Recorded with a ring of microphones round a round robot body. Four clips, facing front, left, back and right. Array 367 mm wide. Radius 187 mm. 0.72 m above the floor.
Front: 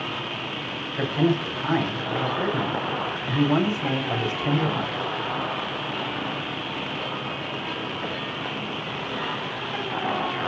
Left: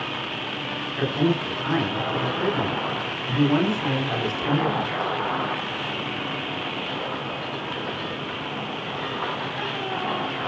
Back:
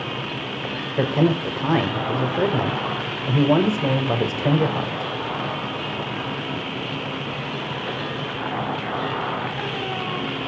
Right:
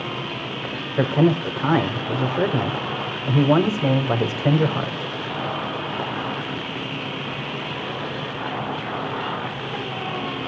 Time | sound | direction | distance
0.9 | a man speaking | 135° right | 4 m